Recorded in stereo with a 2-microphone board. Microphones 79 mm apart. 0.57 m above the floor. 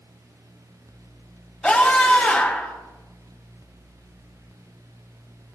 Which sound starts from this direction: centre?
A scream, at 1.6 s.